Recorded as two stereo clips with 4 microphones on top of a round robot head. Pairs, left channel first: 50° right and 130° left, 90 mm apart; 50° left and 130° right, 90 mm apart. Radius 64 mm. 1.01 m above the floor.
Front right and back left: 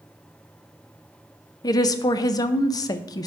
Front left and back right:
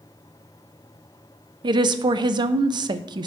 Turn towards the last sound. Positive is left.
turn(degrees=-95)